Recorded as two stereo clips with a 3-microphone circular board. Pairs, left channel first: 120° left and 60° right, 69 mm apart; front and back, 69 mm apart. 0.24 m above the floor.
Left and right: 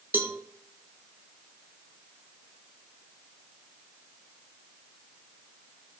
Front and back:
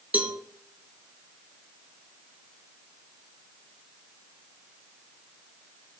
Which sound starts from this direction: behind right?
A cowbell, at 0.1 s.